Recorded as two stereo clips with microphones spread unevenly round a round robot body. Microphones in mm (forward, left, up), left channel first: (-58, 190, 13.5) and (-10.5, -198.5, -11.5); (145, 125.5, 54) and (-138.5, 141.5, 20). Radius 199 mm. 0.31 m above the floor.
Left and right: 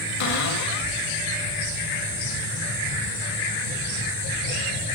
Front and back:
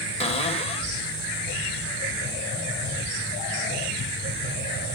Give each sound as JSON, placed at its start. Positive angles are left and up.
{"t": 0.2, "sound": "a cupboard door", "azimuth_deg": 65, "distance_m": 1.7}